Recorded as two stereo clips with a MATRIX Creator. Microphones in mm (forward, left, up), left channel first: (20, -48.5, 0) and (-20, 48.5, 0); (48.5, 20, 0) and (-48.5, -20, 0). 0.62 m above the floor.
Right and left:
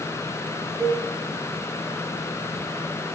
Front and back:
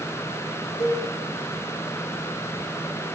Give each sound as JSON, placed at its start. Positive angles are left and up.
{"t": 0.8, "sound": "a cowbell", "azimuth_deg": 80, "distance_m": 2.0}